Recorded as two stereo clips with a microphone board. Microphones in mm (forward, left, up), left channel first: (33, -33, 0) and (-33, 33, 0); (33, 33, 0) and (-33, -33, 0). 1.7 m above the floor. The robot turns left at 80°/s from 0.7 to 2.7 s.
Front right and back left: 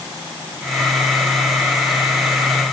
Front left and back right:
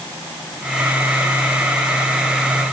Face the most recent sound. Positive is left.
No sound to turn to.